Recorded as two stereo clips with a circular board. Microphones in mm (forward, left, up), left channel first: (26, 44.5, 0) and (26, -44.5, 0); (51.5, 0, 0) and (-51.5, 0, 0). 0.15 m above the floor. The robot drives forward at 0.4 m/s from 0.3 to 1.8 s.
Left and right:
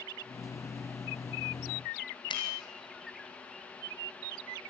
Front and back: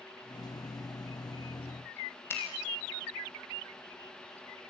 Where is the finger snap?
65° left, 5.5 m.